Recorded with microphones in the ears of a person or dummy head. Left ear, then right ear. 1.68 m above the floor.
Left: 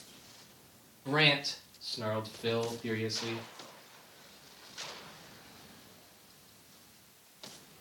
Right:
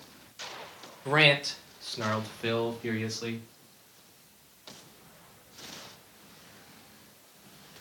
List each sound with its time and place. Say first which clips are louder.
1.1 s a man speaking: right 5 dB; 30° right (ahead or behind), 0.7 m; by 3.4 s 40° right (ahead or behind), 2 m